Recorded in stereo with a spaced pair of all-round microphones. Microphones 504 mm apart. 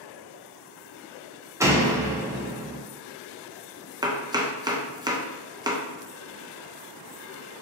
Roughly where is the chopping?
Centre.